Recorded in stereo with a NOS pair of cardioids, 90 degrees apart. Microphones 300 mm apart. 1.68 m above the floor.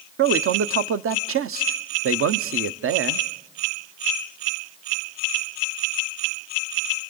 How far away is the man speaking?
About 0.9 m.